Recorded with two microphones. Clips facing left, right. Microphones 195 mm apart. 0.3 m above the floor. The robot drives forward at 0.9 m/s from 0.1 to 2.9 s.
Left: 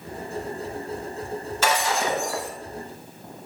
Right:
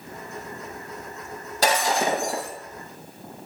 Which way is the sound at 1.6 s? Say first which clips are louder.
Right 2 dB; 35° right (ahead or behind).